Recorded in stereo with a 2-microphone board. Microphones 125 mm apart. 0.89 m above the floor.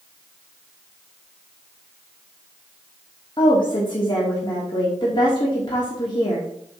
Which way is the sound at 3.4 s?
40° left (ahead or behind).